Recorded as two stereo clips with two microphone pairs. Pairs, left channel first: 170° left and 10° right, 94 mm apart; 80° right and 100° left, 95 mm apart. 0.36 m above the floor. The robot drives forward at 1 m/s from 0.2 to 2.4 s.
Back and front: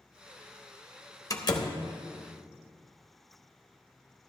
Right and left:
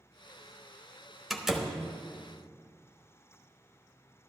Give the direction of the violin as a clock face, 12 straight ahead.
No violin in this recording.